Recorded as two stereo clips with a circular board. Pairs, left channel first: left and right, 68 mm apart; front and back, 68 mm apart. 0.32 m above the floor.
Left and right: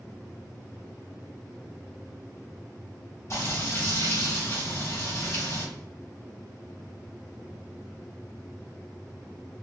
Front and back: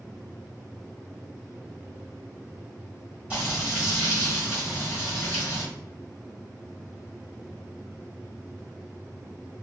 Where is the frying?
115° left, 1.4 m.